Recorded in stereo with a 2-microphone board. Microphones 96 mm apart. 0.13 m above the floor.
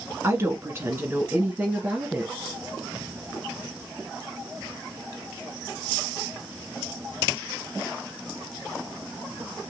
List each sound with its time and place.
0.2 s a woman speaking: 30° right (ahead or behind), 1.2 m; by 2.3 s 10° right (ahead or behind), 1.6 m